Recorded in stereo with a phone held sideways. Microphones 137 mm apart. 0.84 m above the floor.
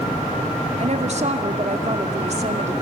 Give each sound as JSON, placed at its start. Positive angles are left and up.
{"t": 0.8, "sound": "a woman speaking", "side_deg": -55, "distance_m": 2.0}